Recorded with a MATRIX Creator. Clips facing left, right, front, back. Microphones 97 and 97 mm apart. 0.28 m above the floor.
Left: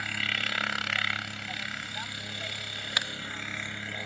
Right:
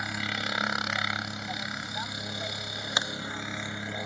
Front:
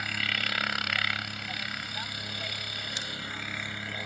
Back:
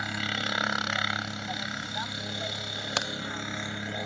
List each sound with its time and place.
0.0 s a helicopter: 140° right
3.0 s a crack: 155° right